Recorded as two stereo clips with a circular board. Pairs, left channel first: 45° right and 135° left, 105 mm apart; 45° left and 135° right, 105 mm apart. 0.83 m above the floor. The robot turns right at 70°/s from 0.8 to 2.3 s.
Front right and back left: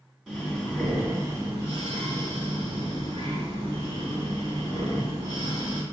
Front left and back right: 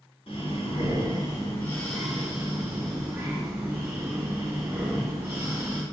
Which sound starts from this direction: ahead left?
Breathing, at 0.3 s.